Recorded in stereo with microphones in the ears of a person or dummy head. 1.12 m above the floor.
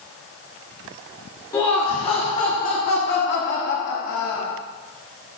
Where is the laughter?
25° left (ahead or behind), 2.5 m; by 4.5 s 75° left (ahead or behind), 3 m.